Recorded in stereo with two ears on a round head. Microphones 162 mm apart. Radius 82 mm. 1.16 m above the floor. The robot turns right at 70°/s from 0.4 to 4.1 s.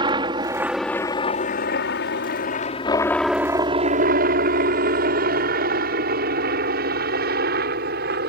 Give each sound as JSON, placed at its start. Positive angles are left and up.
{"t": 0.0, "sound": "a helicopter", "side_deg": -25}